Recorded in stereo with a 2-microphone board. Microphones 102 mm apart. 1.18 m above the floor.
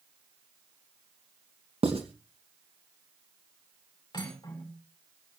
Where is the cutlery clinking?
40° left (ahead or behind), 6.5 m.